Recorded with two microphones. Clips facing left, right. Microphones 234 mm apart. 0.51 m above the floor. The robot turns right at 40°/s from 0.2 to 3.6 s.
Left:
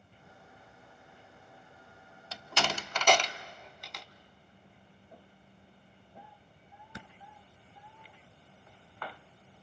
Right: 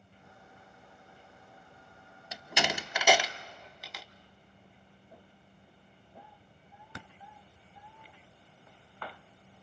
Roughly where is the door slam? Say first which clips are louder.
Right 1 dB; centre.